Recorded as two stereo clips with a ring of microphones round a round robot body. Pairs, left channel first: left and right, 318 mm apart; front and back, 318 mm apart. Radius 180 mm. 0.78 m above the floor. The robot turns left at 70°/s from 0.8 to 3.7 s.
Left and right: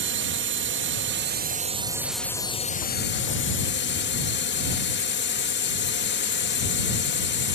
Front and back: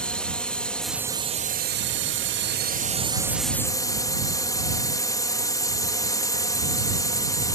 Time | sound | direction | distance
0.0 | a drone | 85° right | ?